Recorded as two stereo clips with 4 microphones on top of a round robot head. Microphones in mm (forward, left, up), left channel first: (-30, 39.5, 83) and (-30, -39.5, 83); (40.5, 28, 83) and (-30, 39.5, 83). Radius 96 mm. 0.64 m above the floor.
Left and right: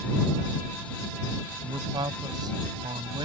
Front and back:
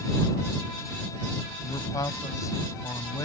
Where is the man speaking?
50° right; by 3.2 s 60° right.